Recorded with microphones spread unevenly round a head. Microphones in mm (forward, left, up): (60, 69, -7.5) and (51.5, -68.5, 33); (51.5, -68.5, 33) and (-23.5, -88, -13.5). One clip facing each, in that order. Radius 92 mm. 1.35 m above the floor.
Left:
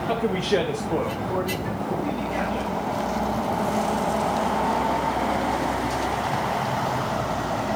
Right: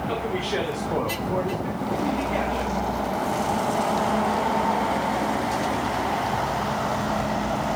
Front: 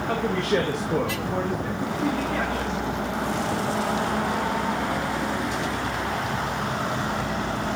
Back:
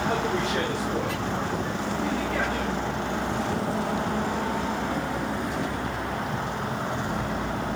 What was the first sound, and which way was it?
A man speaking, 70° left.